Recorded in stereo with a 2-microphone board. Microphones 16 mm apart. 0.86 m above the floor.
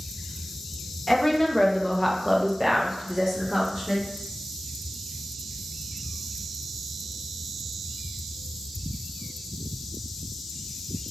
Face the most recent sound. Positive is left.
turn(degrees=-35)  # may be behind; listen again after turning